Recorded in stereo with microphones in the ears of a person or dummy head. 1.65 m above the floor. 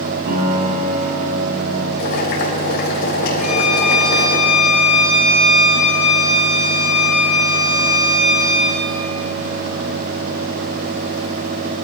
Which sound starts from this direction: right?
A piano, at 0.3 s.